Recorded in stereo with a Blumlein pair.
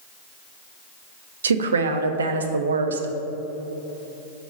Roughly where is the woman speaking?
Right.